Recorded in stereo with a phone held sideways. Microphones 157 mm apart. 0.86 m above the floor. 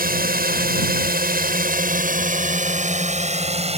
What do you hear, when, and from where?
0.0 s a drone: 70° right (ahead or behind); by 3.8 s 40° right (ahead or behind)